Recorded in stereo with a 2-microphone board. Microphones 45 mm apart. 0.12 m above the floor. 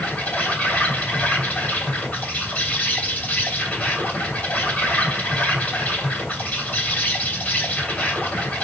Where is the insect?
35° left (ahead or behind), 2.5 m.